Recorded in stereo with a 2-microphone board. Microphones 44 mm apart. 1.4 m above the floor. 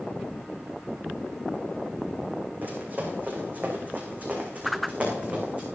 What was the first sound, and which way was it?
Running footsteps, 45° right (ahead or behind).